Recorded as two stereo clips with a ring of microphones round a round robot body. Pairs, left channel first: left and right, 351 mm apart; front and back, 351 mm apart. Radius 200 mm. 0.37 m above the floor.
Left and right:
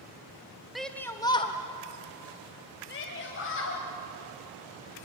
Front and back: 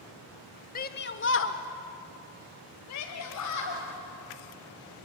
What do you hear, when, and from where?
0.8 s a shout: straight ahead, 0.9 m; by 3.8 s 35° left, 2 m